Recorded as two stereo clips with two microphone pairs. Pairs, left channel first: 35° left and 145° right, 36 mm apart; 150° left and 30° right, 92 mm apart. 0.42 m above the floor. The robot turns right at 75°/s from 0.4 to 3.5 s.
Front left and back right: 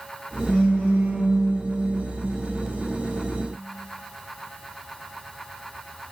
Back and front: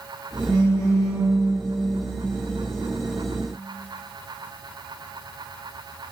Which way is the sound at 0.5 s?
20° right.